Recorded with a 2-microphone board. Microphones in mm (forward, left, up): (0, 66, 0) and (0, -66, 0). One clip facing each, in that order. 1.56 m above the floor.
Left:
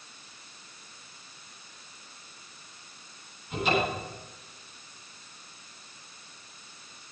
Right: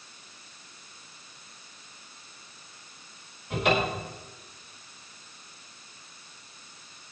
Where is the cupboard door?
60° right (ahead or behind), 6.5 m.